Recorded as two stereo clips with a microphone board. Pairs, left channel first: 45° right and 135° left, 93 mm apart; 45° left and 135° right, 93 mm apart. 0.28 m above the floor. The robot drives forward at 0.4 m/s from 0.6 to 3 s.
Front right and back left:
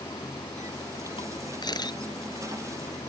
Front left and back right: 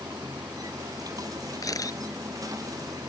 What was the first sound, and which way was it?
Running water, 80° right.